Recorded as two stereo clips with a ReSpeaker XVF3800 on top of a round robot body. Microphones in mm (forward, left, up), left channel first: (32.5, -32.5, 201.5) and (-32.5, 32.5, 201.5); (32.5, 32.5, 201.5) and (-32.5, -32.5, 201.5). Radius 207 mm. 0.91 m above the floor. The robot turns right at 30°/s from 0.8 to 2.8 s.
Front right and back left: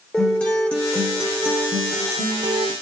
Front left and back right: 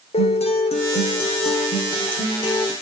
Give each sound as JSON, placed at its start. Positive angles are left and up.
{"t": 0.1, "sound": "a guitar", "azimuth_deg": 35, "distance_m": 1.7}